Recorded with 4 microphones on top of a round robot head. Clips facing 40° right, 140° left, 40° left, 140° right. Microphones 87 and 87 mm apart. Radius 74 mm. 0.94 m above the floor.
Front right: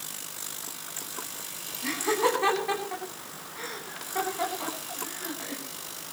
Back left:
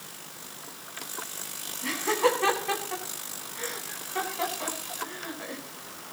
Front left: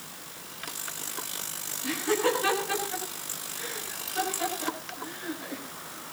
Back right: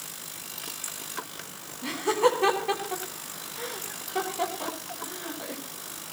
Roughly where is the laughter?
Behind right.